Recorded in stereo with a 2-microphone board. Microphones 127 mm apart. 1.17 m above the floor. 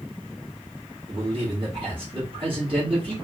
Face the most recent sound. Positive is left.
turn(degrees=-45)  # may be behind; listen again after turning